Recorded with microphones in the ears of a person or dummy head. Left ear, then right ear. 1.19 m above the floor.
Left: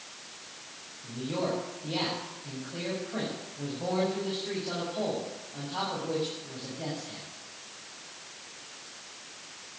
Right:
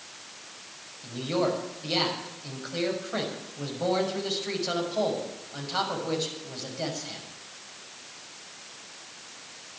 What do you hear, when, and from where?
1.0 s a man speaking: 60° right (ahead or behind), 6.5 m